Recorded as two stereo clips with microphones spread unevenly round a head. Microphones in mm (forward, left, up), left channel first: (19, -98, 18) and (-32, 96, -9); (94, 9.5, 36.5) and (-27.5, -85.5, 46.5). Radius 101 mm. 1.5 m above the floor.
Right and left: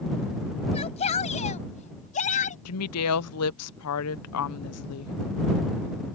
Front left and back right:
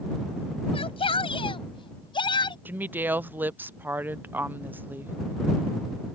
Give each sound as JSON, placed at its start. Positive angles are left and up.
{"t": 0.7, "sound": "a shout", "azimuth_deg": -15}
{"t": 2.6, "sound": "a woman speaking", "azimuth_deg": -65}